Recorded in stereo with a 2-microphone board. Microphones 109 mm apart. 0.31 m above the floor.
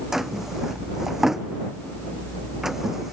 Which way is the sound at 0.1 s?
5° right (ahead or behind).